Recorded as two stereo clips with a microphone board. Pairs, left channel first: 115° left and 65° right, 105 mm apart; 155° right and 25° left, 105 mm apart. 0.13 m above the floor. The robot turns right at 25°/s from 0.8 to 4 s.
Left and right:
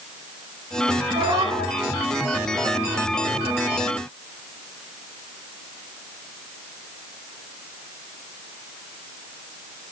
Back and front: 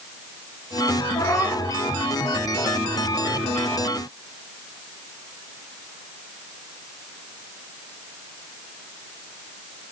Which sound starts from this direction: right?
A cat meowing, at 1.1 s.